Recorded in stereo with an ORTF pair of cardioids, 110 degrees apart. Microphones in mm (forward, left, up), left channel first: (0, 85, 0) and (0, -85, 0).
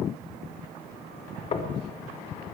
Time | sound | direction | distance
1.5 | knocking | 35° left | 1.4 m